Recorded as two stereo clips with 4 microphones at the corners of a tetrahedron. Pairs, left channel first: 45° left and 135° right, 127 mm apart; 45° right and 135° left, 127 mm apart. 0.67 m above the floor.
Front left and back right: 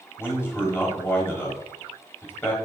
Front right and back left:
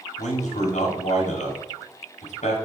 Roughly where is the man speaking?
Ahead right.